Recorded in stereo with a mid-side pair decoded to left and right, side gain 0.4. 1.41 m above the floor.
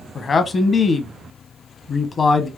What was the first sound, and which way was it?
A man speaking, 40° left.